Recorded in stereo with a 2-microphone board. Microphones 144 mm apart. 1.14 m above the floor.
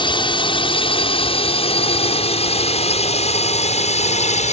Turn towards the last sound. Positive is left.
turn(degrees=50)  # may be behind; listen again after turning